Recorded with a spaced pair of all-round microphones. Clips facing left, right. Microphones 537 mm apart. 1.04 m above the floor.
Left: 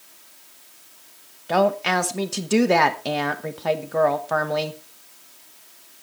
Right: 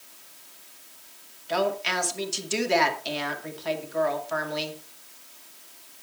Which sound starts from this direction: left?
A woman speaking, at 1.5 s.